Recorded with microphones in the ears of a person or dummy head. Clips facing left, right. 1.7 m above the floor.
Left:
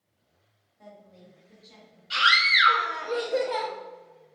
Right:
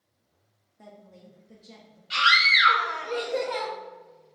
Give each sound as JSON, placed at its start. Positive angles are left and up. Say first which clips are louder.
{"t": 0.8, "sound": "a woman speaking", "louder": "right 1 dB", "side_deg": -55, "distance_m": 0.6}
{"t": 2.1, "sound": "a scream", "louder": "right 1 dB", "side_deg": 5, "distance_m": 0.6}